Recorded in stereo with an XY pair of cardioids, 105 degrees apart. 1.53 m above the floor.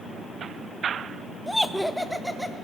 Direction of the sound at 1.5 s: Straight ahead.